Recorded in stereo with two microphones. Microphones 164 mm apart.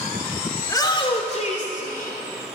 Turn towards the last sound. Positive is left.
turn(degrees=60)  # may be behind; listen again after turning